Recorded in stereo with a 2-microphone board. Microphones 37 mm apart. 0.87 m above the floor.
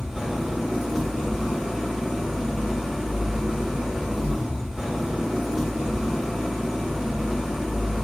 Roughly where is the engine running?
Centre.